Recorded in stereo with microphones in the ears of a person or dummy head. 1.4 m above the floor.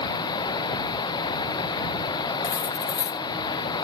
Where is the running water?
30° left (ahead or behind).